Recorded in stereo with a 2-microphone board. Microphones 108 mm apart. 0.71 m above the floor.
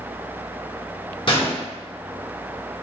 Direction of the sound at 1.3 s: 50° left (ahead or behind).